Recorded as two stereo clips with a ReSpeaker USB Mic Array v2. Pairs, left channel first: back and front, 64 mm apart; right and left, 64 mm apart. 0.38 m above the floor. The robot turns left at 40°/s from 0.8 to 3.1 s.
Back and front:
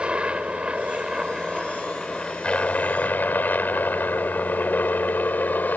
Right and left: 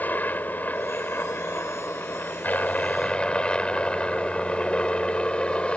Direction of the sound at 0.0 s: 60° right.